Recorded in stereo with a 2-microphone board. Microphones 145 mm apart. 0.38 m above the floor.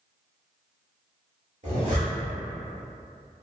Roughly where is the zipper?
Right.